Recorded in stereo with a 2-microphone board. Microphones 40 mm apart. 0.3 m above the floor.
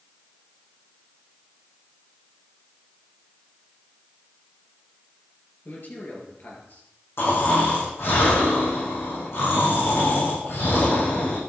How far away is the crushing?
I don't hear crushing.